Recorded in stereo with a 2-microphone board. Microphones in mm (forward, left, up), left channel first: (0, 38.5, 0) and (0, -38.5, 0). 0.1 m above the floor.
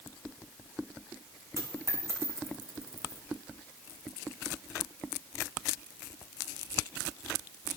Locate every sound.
1.6 s a dropped coin: 40° right (ahead or behind), 3 m